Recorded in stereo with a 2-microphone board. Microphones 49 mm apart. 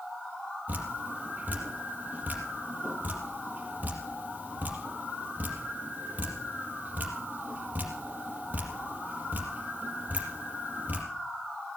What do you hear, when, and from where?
0.7 s dripping: 35° right (ahead or behind), 4 m